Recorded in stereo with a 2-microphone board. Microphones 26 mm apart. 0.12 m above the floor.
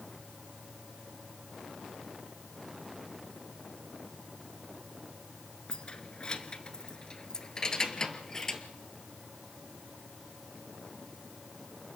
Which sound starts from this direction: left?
Keys jangling, at 5.7 s.